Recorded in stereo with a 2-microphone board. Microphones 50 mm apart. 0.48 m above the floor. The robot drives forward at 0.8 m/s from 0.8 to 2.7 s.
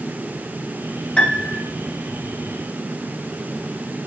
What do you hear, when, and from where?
1.2 s a piano: 20° left (ahead or behind), 4.5 m